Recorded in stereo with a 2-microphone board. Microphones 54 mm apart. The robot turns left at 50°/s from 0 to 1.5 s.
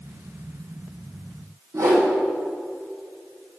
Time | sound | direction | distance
1.7 | a whoosh | 90° right | 2.5 m